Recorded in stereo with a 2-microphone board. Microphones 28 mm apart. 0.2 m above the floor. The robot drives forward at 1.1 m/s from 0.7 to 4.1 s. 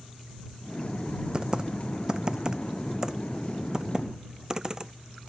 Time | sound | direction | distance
1.3 | typing on a keyboard | 30° right (ahead or behind) | ?